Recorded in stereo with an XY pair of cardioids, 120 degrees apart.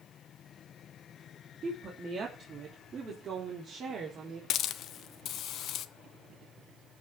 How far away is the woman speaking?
About 3 m.